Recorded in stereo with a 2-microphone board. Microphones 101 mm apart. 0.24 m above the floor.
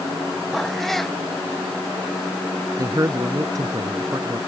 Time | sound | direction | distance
0.5 | a cat meowing | centre (ahead or behind) | ?
2.8 | a man speaking | 35° right (ahead or behind) | ?